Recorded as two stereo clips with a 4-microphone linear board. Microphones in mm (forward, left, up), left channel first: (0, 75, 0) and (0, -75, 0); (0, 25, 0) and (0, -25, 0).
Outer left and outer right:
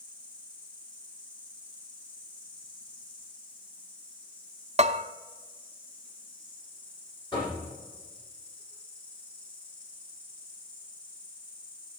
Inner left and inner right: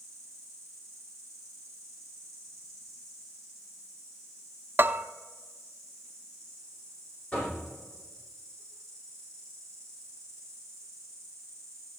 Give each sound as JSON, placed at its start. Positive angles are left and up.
{"t": 0.0, "sound": "an insect", "side_deg": 10, "distance_m": 5.0}
{"t": 4.8, "sound": "a bell", "side_deg": -50, "distance_m": 0.6}
{"t": 7.3, "sound": "knocking", "side_deg": 30, "distance_m": 8.5}